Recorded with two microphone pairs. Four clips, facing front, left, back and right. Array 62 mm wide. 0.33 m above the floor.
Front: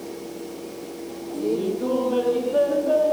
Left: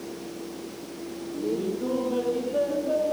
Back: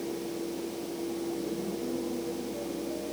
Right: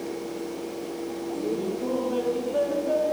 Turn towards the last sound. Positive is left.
turn(degrees=-5)